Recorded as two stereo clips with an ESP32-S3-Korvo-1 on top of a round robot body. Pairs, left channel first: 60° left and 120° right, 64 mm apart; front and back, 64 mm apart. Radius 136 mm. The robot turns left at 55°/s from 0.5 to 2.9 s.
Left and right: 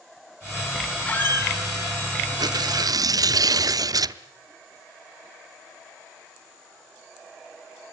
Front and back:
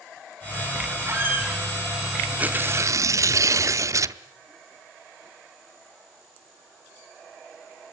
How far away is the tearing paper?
About 0.8 m.